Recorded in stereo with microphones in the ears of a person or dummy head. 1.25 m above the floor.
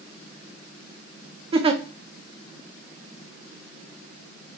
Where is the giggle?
40° right (ahead or behind), 0.5 m.